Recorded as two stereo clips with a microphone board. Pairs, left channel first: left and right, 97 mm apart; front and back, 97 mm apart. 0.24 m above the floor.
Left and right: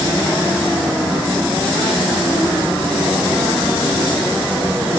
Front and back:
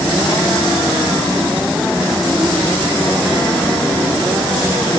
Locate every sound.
Only background noise.